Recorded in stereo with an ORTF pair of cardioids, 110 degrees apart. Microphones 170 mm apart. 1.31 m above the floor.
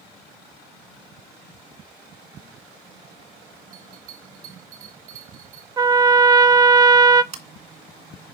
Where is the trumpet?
20° right, 0.6 m.